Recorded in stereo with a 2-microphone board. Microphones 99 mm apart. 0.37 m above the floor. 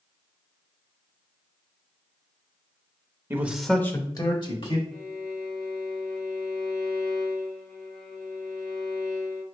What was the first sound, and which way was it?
A man speaking, 25° right (ahead or behind).